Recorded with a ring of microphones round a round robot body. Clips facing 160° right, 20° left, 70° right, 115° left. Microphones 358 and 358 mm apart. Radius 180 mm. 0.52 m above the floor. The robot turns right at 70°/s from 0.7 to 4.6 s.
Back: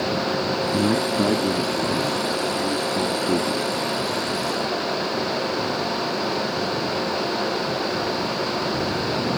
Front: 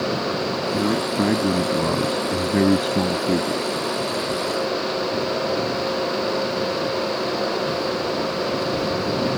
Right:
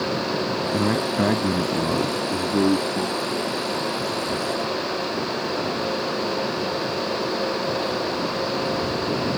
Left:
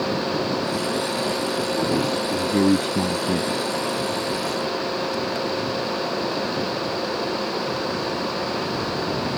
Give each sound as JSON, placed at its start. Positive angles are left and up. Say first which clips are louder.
{"t": 0.7, "sound": "a man speaking", "louder": "back 1 dB, right 3 dB", "azimuth_deg": -90}